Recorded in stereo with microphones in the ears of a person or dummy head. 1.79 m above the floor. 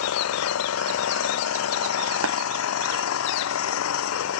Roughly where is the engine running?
Left.